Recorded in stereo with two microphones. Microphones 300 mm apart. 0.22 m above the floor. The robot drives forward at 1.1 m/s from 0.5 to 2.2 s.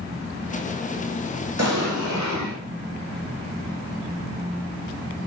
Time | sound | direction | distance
1.6 | an explosion | 65° right (ahead or behind) | 5.5 m